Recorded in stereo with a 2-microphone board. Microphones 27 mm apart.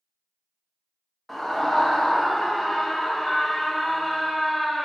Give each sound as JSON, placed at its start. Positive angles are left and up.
{"t": 1.3, "sound": "a scream", "side_deg": 5, "distance_m": 0.7}